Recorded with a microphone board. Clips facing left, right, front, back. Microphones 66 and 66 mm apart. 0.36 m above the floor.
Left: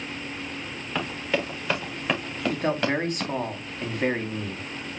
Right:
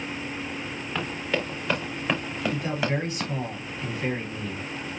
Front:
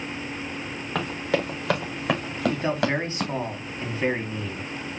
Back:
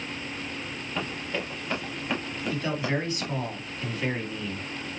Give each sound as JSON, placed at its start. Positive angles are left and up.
{"t": 0.9, "sound": "running footsteps", "azimuth_deg": 5, "distance_m": 5.0}
{"t": 2.5, "sound": "a man speaking", "azimuth_deg": 60, "distance_m": 3.0}